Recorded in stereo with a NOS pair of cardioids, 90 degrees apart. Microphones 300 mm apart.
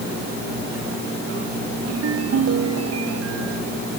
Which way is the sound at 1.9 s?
55° right.